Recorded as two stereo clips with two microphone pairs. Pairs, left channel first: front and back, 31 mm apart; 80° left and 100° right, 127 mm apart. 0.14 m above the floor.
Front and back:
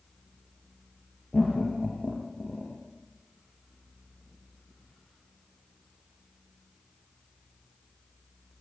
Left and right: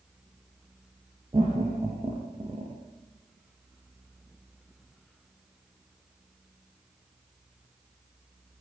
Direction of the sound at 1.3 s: 55° right.